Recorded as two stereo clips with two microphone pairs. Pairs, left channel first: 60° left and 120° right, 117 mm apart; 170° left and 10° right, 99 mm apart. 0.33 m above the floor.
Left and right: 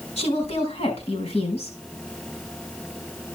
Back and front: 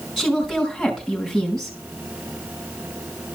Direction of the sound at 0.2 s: 80° left.